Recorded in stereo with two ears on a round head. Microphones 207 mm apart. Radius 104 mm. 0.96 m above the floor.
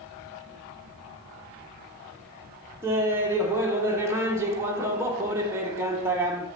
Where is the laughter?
10° right (ahead or behind), 0.7 m.